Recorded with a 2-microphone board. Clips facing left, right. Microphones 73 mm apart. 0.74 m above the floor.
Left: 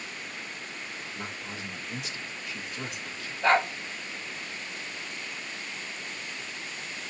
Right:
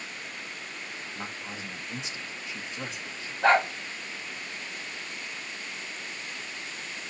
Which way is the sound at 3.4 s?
65° right (ahead or behind).